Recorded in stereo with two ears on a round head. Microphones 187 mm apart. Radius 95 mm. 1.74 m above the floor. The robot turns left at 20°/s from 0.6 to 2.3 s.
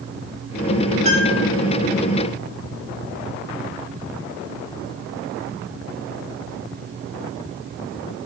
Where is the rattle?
No rattle in this recording.